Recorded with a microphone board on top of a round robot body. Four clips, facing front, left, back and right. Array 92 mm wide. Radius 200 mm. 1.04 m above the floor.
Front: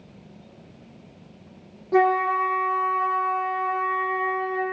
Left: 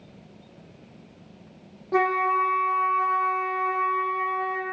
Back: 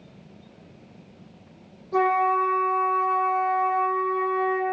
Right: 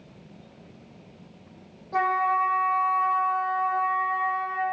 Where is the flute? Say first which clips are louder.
Left 1 dB, front 1 dB; 60° left, 1.4 m.